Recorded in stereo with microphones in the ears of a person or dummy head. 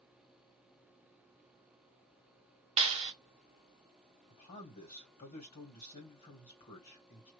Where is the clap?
30° right (ahead or behind), 1.3 m.